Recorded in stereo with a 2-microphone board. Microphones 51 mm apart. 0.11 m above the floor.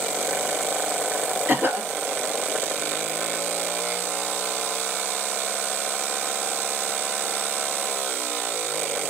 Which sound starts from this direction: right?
A cough, at 1.5 s.